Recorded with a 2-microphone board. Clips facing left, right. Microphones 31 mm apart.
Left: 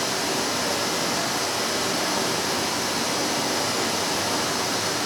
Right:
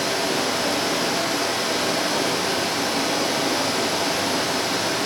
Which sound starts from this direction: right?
Running water, at 0.0 s.